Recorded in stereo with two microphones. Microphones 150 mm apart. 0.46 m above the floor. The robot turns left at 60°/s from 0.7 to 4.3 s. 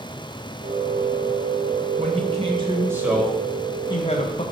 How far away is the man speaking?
About 1.9 m.